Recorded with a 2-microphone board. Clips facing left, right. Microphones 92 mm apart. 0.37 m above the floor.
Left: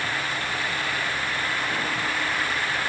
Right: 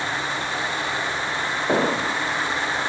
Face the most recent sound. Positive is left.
turn(degrees=-80)